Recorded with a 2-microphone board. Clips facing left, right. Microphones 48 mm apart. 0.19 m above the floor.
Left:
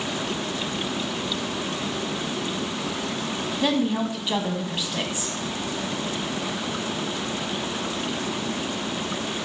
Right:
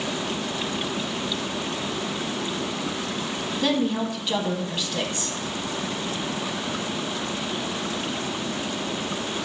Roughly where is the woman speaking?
Centre.